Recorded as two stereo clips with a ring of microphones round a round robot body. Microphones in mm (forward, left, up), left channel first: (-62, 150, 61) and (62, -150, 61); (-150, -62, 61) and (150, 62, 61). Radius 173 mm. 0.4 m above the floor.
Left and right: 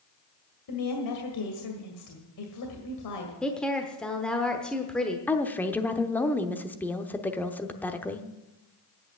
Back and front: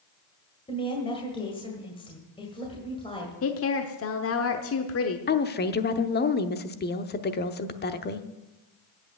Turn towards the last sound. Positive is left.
turn(degrees=-170)